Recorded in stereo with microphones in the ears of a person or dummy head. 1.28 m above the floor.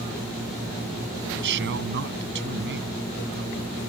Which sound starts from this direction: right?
A man speaking, at 1.3 s.